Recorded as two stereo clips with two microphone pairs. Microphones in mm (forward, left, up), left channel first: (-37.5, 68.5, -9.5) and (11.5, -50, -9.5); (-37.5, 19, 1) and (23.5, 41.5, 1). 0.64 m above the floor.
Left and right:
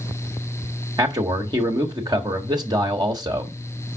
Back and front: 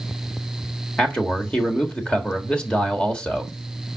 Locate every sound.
1.0 s a man speaking: 100° right, 1.4 m